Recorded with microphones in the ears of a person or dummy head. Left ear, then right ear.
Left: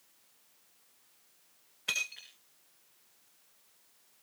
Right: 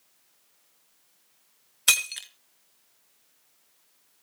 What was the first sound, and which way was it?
Breaking glass, 55° right (ahead or behind).